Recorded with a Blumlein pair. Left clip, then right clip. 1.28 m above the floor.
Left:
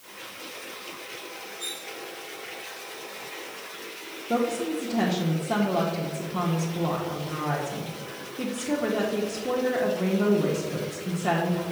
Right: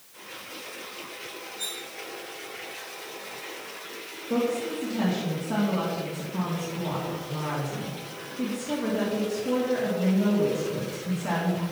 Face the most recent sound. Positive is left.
turn(degrees=30)